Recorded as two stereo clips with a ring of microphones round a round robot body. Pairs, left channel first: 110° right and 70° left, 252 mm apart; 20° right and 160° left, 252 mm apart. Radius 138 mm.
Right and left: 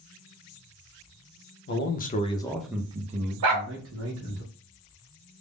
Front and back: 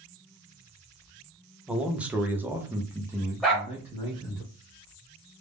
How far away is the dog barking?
About 0.9 m.